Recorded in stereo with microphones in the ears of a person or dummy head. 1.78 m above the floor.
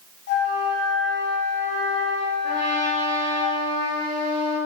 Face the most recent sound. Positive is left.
turn(degrees=-25)  # may be behind; listen again after turning